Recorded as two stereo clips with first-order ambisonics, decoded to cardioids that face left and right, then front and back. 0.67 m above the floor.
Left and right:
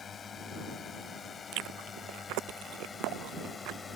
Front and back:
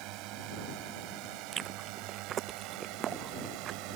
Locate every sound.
0.0 s a drone: 160° left; by 4.0 s 165° left
1.5 s chewing: 120° right